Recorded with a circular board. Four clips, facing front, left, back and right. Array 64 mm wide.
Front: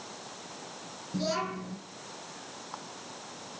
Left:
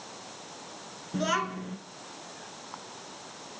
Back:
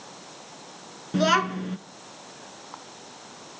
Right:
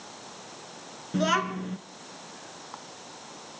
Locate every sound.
1.1 s a child speaking: 165° right, 1.8 m